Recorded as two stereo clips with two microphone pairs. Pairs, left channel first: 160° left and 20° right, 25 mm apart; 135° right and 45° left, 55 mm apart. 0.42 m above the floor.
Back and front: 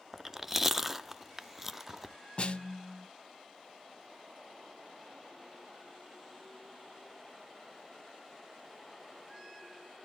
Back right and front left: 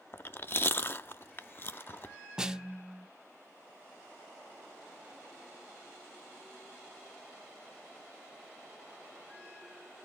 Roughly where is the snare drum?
Behind left.